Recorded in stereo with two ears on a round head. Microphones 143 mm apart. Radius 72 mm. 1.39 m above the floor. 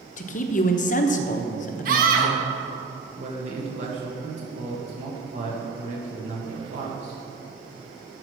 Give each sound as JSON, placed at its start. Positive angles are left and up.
{"t": 0.2, "sound": "a man speaking", "side_deg": 50, "distance_m": 0.9}
{"t": 1.9, "sound": "a scream", "side_deg": -55, "distance_m": 1.7}
{"t": 3.2, "sound": "a man speaking", "side_deg": -45, "distance_m": 1.4}